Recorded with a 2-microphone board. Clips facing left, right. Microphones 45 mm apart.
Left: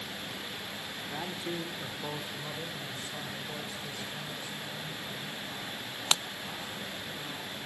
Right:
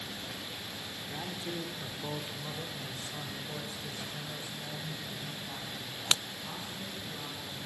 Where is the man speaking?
25° left (ahead or behind), 1.4 m; by 7.6 s 5° right (ahead or behind), 6 m.